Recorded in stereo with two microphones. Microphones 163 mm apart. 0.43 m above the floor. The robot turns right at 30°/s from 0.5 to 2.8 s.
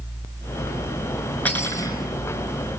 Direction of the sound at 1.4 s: 10° left (ahead or behind).